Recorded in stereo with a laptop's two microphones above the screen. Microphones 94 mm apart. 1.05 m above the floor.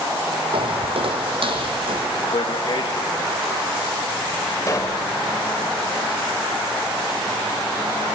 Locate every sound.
0.5 s footsteps: 70° right (ahead or behind), 2.5 m; by 2.1 s 60° right (ahead or behind), 3.5 m
2.3 s a man speaking: 70° left (ahead or behind), 1.4 m
4.7 s a pop: 35° left (ahead or behind), 1.3 m